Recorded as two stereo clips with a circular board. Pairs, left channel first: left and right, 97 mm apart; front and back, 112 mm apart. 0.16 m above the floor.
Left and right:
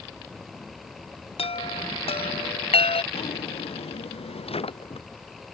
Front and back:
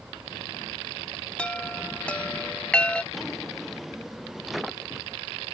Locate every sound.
1.4 s a chime: 80° left
3.1 s a drawer: 90° left